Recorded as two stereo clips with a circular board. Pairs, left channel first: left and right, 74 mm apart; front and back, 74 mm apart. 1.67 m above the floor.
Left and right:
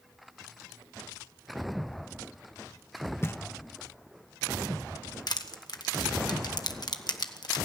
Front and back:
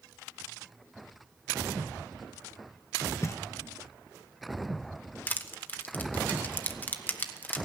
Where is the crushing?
65° left, 1.3 m.